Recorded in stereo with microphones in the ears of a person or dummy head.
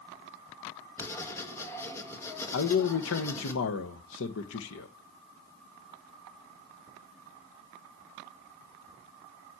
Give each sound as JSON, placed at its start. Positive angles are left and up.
{"t": 1.0, "sound": "writing", "side_deg": 15, "distance_m": 1.4}
{"t": 2.5, "sound": "a man speaking", "side_deg": 80, "distance_m": 1.2}